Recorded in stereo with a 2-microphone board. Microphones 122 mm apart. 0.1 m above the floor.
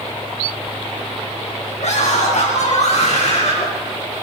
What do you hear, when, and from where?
1.8 s a scream: 70° left (ahead or behind), 5.5 m; by 3.7 s 55° left (ahead or behind), 7.5 m